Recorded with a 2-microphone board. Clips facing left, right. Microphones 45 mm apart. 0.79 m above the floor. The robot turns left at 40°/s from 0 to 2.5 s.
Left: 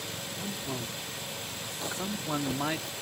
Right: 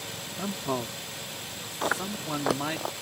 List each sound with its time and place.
0.4 s a man speaking: 65° right (ahead or behind); by 2.8 s 5° left (ahead or behind)
1.8 s chewing: 50° right (ahead or behind); by 2.9 s 80° right